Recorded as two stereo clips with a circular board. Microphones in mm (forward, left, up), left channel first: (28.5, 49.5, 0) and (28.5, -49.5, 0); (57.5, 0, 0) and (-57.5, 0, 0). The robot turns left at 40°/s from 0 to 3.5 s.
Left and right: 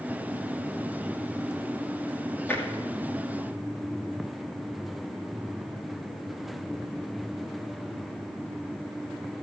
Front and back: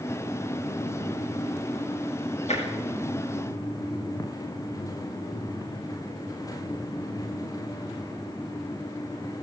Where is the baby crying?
No baby crying in this recording.